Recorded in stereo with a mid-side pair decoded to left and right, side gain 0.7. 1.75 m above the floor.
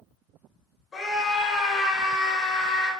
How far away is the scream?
About 1.8 m.